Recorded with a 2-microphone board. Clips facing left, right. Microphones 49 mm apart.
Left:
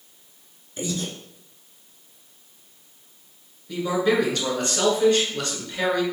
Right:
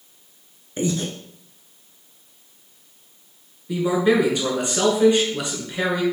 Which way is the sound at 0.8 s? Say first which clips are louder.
Right 5 dB; 35° right (ahead or behind).